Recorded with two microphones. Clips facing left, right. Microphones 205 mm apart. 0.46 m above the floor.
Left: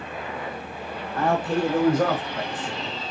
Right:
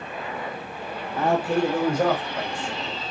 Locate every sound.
1.1 s a man speaking: 5° right (ahead or behind), 0.8 m; by 3.0 s 10° right (ahead or behind), 2.5 m